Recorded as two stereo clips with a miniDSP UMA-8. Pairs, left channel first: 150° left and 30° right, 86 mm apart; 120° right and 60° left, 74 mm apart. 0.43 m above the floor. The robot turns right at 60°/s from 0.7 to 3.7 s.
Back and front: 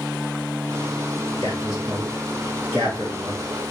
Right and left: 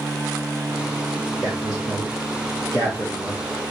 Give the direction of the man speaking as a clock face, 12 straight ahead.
1 o'clock.